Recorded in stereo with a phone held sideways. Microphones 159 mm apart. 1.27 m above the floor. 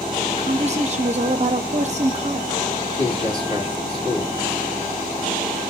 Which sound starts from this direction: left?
A man speaking, at 2.9 s.